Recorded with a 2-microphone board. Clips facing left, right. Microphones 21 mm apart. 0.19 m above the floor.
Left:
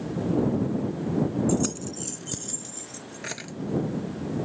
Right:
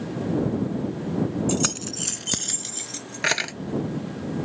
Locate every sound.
1.5 s keys jangling: 50° right (ahead or behind)